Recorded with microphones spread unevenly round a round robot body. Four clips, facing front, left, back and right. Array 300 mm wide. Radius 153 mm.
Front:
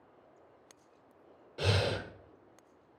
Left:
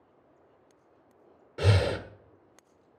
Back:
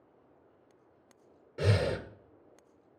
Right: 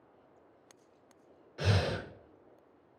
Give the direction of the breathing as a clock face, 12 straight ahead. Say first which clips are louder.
Left 5 dB, back 2 dB; 8 o'clock.